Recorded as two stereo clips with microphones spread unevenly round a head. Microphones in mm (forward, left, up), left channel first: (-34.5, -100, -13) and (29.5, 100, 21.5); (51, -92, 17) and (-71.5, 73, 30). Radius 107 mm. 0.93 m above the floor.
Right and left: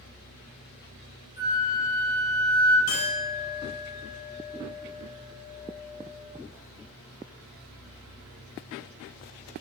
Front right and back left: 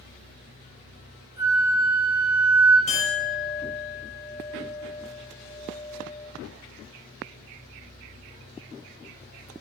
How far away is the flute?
About 3.5 m.